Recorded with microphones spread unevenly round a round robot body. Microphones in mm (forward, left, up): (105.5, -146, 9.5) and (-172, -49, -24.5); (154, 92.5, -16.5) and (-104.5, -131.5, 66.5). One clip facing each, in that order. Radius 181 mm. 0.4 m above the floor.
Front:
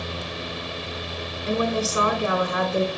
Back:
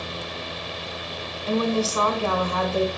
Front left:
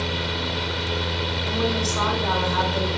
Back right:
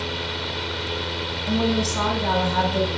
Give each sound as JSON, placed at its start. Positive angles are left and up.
{"t": 1.5, "sound": "a woman speaking", "azimuth_deg": -95, "distance_m": 4.0}